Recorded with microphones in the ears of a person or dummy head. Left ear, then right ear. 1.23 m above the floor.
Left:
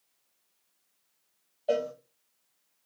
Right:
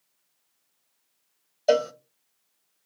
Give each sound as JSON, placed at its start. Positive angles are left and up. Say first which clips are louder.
{"t": 1.7, "sound": "a cowbell", "louder": "right 7 dB", "side_deg": -55, "distance_m": 0.5}